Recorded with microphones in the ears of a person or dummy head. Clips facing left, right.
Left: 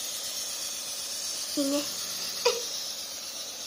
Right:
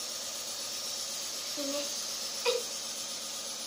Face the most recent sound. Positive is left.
turn(degrees=60)  # may be behind; listen again after turning